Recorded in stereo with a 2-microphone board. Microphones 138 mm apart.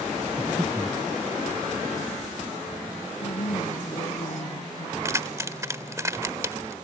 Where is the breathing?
15° right (ahead or behind).